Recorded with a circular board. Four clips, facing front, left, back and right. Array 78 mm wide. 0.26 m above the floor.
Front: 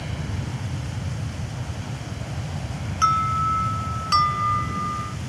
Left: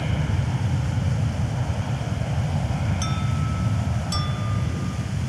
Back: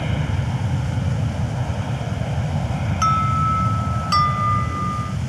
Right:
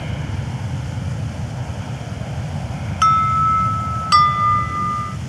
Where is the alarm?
95° right.